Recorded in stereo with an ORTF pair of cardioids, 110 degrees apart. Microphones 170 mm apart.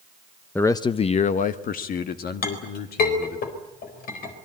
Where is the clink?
65° left, 4 m.